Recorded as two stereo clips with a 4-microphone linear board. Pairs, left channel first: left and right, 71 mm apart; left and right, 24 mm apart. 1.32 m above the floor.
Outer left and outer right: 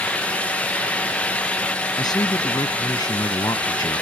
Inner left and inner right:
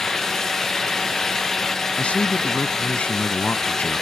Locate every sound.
2.0 s a man speaking: 70° left (ahead or behind)